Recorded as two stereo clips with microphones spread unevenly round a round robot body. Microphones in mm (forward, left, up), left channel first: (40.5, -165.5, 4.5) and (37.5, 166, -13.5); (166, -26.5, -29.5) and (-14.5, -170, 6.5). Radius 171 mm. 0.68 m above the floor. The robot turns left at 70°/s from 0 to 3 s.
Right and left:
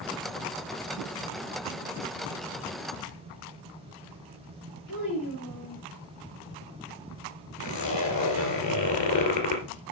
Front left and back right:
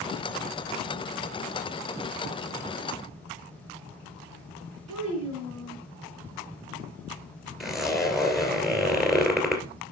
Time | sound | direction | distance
4.9 | a child speaking | 140° right | 4.5 m
7.6 | a zipper | 55° right | 2.5 m